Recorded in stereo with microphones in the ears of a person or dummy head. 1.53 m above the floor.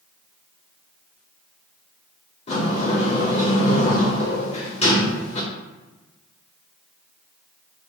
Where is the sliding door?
30° left (ahead or behind), 0.6 m.